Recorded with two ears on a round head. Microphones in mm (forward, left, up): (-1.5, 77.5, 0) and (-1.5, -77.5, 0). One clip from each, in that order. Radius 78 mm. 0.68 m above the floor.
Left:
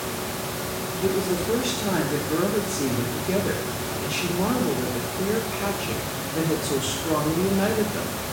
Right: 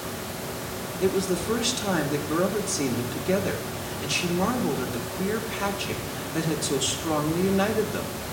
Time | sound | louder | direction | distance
1.0 | a woman speaking | even | 65° right (ahead or behind) | 1.4 m